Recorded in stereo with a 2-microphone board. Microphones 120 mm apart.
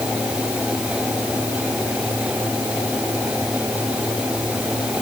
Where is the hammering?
I don't hear hammering.